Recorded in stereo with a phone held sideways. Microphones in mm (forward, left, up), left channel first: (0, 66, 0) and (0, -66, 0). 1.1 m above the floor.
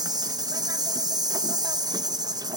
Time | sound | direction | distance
0.0 | an insect | 30° right (ahead or behind) | 0.9 m